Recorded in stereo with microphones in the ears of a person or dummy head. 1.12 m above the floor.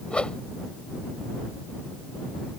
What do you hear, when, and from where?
0.1 s a whoosh: 5° left (ahead or behind)